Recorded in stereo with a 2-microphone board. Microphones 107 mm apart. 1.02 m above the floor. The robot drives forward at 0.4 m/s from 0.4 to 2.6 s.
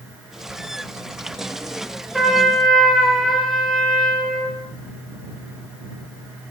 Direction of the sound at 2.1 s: Centre (ahead or behind).